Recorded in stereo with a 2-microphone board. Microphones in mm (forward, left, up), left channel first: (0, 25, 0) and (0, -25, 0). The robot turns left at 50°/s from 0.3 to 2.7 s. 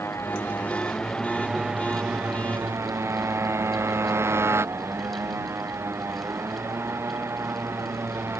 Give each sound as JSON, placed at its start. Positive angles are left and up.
{"t": 0.0, "sound": "a motorcycle", "side_deg": 55}